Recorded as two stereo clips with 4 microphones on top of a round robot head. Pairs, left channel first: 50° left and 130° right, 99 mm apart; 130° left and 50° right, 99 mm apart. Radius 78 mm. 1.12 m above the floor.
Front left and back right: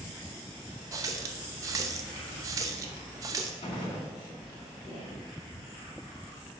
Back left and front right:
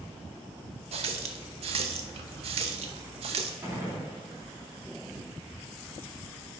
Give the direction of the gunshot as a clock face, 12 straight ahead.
11 o'clock.